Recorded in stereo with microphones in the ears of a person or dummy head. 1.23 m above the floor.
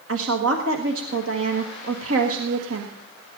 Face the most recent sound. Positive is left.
turn(degrees=-80)